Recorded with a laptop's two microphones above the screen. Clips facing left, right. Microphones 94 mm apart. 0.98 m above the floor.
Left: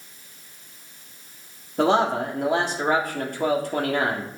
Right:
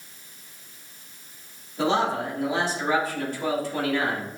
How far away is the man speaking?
About 1.7 m.